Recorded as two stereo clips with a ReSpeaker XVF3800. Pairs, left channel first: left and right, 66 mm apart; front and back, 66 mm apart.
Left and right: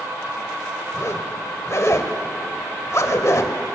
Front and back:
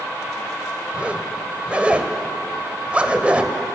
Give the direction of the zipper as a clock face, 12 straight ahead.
8 o'clock.